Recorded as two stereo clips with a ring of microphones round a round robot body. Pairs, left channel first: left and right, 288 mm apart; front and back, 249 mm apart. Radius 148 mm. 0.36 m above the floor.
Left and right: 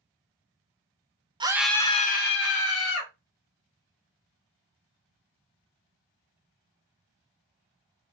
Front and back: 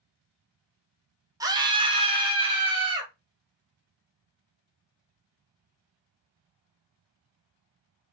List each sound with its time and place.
1.4 s a scream: 130° right, 0.9 m; by 3.1 s 110° left, 1.6 m